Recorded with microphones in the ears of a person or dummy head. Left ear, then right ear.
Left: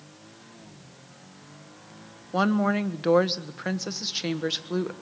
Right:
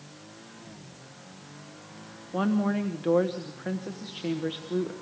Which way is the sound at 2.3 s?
70° left (ahead or behind).